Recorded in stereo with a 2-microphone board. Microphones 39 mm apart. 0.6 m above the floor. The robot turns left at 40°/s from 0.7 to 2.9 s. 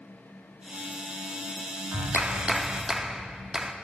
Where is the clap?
115° right, 0.6 m; by 3.7 s 155° right, 0.6 m.